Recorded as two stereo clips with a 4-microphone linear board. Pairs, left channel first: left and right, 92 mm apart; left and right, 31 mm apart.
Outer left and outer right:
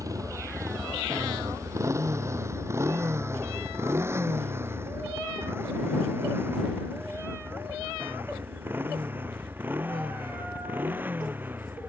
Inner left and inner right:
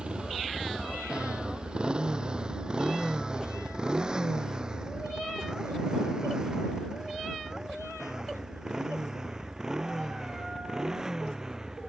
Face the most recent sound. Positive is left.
turn(degrees=-20)  # may be behind; listen again after turning